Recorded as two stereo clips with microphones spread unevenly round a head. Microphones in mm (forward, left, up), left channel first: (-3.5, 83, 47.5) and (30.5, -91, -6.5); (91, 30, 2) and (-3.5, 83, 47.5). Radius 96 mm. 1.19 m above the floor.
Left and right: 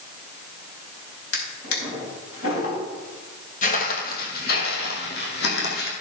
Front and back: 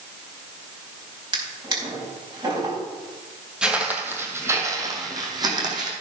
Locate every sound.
1.3 s a drawer: 110° left, 4 m
3.6 s footsteps: 90° left, 2 m; by 5.9 s 120° left, 3.5 m